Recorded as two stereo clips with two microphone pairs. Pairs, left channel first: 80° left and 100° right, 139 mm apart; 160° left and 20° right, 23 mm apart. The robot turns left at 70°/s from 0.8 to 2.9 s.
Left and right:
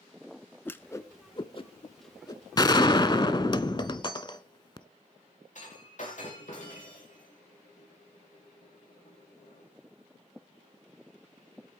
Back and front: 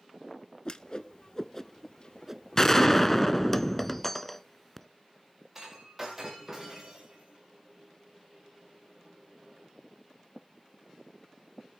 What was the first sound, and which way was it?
A whoosh, 145° left.